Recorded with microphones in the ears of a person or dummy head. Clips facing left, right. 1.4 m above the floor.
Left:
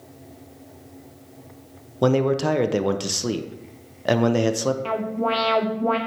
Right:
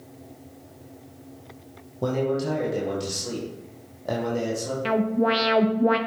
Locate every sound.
2.0 s a man speaking: 80° left, 0.6 m
4.8 s an alarm: 20° right (ahead or behind), 0.6 m